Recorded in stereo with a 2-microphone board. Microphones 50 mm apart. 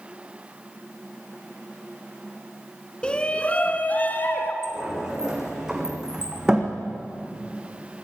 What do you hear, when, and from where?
3.0 s a shout: 20° left (ahead or behind), 1.4 m; by 4.5 s 40° left (ahead or behind), 1.9 m
4.6 s a sliding door: 10° right (ahead or behind), 3.5 m